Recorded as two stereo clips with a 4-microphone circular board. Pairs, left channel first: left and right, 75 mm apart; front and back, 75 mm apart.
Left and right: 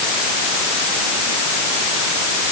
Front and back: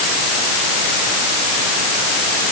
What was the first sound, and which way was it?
Only background noise.